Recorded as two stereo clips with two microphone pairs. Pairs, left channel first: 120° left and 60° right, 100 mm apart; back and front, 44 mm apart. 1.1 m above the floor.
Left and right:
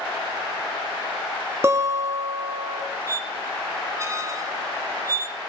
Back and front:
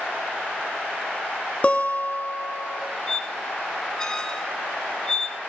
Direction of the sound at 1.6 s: 125° right.